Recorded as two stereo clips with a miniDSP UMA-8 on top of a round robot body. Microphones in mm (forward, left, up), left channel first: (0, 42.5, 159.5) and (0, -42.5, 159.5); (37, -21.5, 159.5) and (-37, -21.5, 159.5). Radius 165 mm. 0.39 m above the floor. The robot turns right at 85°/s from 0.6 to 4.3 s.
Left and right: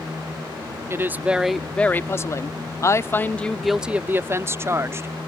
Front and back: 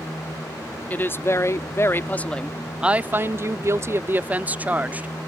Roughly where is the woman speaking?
Ahead right.